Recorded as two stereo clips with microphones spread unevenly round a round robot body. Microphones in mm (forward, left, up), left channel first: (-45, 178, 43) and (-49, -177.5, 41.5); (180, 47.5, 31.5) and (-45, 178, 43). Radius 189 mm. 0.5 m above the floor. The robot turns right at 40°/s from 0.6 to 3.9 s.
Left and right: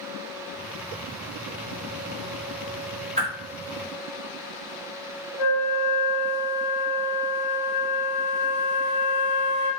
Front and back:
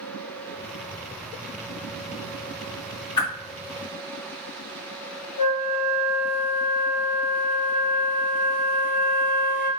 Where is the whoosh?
20° right, 1.0 m; by 3.3 s 15° right, 1.0 m.